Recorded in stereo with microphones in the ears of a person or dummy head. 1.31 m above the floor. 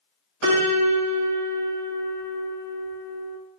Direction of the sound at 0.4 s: 65° right (ahead or behind).